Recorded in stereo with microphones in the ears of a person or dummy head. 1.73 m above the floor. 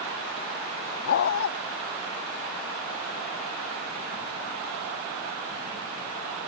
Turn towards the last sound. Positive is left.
turn(degrees=70)  # may be behind; listen again after turning